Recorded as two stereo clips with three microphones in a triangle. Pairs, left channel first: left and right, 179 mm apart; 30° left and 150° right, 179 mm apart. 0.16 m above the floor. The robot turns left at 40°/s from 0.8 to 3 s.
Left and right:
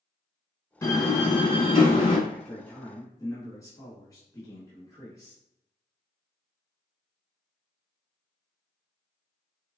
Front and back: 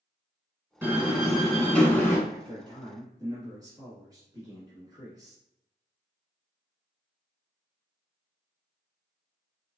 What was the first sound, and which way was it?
A door slam, 145° left.